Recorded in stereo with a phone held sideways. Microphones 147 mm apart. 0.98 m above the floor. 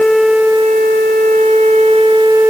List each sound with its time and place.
Only background noise.